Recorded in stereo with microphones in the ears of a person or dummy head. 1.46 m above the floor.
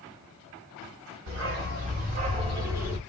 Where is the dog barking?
60° right (ahead or behind), 2 m; by 3.0 s centre (ahead or behind), 1.1 m.